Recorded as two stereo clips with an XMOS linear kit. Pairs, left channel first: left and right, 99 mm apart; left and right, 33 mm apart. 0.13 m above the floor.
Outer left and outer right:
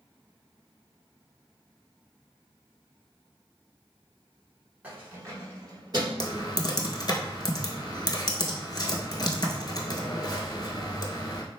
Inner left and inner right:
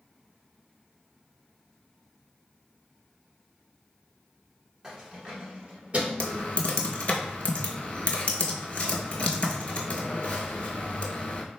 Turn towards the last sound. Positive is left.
turn(degrees=45)  # may be behind; listen again after turning